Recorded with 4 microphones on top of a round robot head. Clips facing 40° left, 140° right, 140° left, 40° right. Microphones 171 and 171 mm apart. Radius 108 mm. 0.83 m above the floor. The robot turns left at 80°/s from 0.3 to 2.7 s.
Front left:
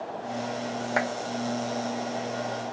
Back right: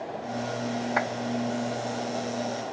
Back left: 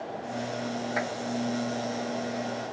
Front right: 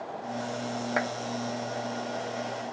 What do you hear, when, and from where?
1.0 s a clap: 5° right, 1.5 m; by 1.1 s 10° right, 1.5 m